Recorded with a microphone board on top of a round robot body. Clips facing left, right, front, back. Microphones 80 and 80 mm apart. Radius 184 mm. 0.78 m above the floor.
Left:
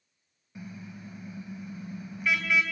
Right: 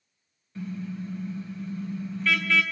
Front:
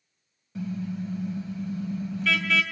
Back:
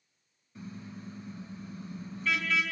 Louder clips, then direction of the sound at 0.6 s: Right 9 dB, front 12 dB; 15° left.